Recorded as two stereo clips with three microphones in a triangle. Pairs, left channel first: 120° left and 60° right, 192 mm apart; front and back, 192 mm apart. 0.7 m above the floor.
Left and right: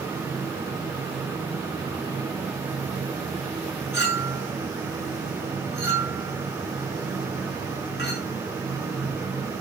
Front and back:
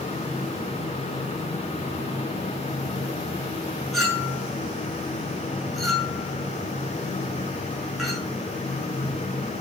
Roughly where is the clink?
Left.